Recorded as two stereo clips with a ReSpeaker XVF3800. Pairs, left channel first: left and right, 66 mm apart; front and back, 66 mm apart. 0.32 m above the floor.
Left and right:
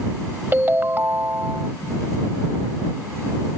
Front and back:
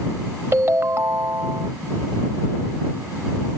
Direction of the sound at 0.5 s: 140° right.